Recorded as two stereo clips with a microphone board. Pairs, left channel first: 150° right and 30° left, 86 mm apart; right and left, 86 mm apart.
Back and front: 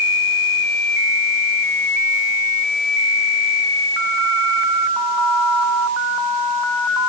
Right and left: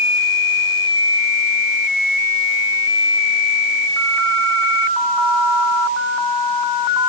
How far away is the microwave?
No microwave in this recording.